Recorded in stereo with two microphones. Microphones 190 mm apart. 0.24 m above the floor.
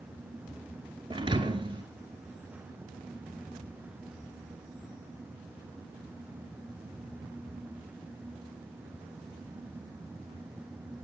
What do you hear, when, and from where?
1.1 s a thud: 25° right (ahead or behind), 0.9 m